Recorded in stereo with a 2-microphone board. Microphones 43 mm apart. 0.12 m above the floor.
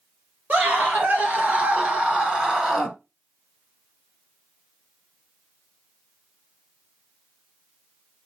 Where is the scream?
45° right (ahead or behind), 3 m; by 3.0 s 10° right (ahead or behind), 1.8 m.